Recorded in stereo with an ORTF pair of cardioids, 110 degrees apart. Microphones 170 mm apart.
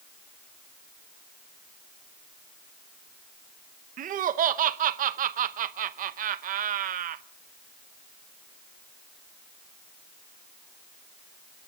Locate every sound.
4.0 s laughter: 55° right, 1.0 m